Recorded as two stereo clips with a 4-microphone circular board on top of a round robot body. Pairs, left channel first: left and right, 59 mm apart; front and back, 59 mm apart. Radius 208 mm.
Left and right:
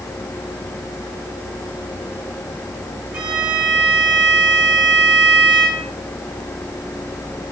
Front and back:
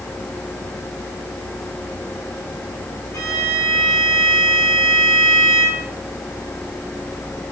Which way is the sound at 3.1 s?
15° right.